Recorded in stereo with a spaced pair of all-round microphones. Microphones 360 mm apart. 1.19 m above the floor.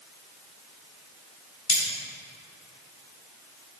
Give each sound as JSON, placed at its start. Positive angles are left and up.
{"t": 1.7, "sound": "cutlery clinking", "side_deg": 85, "distance_m": 2.5}